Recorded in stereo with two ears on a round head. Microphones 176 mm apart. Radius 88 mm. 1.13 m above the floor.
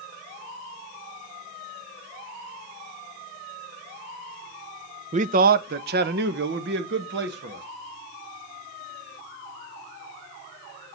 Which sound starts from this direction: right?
A man speaking, at 5.1 s.